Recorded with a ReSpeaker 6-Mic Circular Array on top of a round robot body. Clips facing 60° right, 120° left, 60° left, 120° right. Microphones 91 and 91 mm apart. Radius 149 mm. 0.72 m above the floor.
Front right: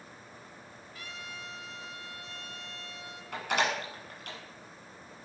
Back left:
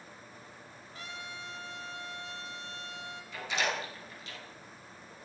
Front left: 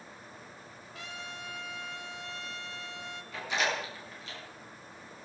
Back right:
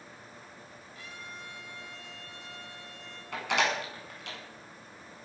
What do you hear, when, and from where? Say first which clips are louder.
0.9 s a trumpet: back left 1 dB, front left 3 dB; 60° left, 3.5 m
3.3 s a door slam: front right 4 dB, back right 3 dB; 95° right, 7 m